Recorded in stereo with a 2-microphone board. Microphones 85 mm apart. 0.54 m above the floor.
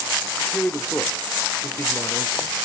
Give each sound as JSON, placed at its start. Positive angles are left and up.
{"t": 0.3, "sound": "a man speaking", "side_deg": 0, "distance_m": 1.1}